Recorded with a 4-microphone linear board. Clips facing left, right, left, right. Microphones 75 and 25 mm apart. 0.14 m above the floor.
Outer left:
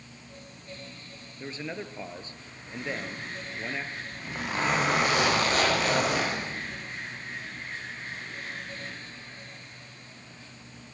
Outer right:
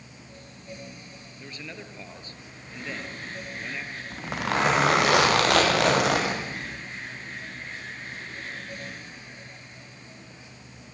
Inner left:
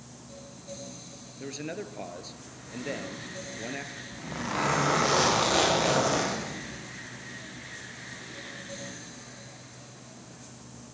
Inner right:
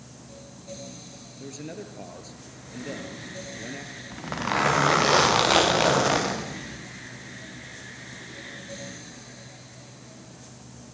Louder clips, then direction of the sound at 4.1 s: Outer right 7 dB, inner right 6 dB; 70° right (ahead or behind).